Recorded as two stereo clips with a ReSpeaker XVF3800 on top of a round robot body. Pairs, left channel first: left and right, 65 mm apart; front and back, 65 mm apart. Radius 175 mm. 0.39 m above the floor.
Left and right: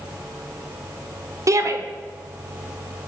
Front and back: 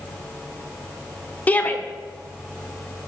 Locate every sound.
1.5 s a shout: 60° right, 1.6 m